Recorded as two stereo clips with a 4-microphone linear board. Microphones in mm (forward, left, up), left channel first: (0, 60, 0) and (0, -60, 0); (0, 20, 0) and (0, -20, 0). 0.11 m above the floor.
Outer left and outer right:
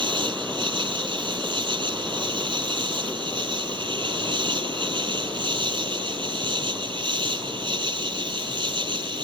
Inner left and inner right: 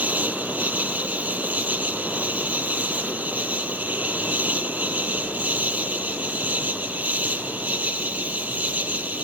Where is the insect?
40° right (ahead or behind).